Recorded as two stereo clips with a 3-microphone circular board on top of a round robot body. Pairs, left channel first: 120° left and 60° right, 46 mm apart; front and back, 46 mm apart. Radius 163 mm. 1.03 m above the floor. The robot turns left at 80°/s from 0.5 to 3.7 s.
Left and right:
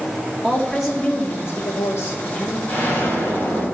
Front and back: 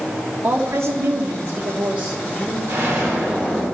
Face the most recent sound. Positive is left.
turn(degrees=85)